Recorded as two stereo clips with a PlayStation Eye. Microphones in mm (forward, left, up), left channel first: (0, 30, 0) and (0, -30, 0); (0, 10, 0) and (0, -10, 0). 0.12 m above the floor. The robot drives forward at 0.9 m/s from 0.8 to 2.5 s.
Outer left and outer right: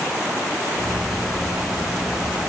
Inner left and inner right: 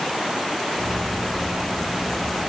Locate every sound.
Only background noise.